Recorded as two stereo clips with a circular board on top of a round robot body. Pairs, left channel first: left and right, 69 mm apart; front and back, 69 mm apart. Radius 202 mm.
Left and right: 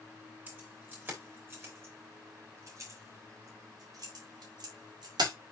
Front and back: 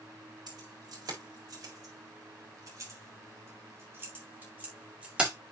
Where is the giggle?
No giggle in this recording.